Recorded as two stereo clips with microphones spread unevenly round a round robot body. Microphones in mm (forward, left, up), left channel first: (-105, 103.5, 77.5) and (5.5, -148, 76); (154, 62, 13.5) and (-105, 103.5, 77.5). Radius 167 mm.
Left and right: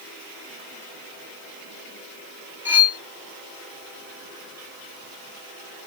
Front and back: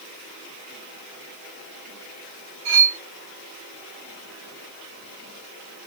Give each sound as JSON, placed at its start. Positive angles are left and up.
{"t": 2.6, "sound": "cutlery clinking", "azimuth_deg": -150, "distance_m": 1.6}